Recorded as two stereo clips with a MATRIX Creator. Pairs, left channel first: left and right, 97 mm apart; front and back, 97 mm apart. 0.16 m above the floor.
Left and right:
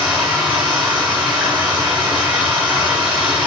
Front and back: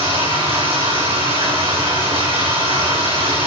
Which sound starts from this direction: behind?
Running water, at 0.0 s.